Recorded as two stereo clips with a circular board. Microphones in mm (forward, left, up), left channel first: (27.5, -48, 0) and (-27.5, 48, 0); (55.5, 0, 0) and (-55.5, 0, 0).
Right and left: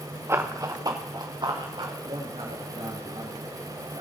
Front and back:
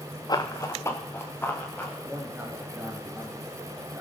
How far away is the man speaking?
About 4.5 m.